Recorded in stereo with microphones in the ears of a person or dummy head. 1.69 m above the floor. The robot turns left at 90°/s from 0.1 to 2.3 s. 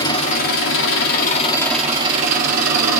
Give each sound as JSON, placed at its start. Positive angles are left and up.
{"t": 0.0, "sound": "an engine running", "azimuth_deg": 155, "distance_m": 1.7}